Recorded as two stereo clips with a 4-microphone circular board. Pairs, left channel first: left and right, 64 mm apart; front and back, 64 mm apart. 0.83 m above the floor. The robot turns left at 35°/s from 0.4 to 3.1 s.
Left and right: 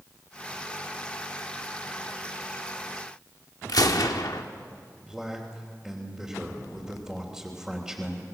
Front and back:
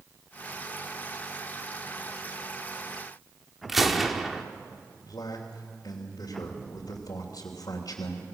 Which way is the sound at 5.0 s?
10° right.